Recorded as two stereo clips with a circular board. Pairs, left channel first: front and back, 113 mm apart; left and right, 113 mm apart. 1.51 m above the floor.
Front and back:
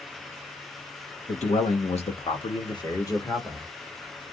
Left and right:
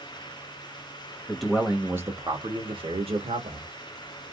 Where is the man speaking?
5° left, 1.5 m; by 3.7 s 75° right, 1.8 m.